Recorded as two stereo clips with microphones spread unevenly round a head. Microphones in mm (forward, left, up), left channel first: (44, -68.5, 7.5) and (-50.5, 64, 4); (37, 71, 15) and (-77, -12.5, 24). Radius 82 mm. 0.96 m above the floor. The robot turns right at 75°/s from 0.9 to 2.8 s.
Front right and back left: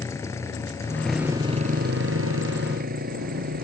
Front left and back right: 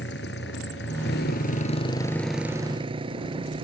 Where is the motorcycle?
20° left; by 3.6 s 165° left.